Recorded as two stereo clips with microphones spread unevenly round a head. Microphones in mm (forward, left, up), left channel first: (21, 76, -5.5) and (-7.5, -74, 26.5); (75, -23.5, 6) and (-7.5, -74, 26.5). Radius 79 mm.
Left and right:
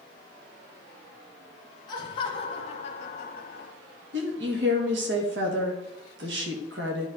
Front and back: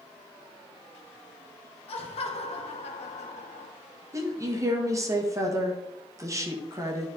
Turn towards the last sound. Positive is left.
turn(degrees=-95)